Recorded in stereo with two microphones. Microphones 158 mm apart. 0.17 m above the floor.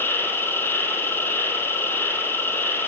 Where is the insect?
15° left (ahead or behind), 1.0 m.